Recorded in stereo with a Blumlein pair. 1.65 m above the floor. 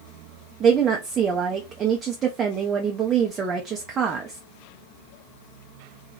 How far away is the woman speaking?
About 0.5 m.